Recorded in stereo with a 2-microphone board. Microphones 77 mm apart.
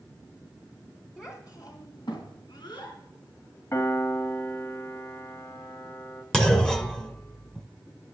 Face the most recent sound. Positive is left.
turn(degrees=10)  # may be behind; listen again after turning